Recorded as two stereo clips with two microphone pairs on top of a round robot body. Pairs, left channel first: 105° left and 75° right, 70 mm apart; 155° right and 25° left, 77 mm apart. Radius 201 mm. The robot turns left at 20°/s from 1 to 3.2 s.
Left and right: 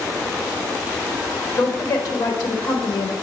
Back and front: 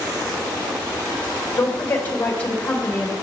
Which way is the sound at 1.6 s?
150° left.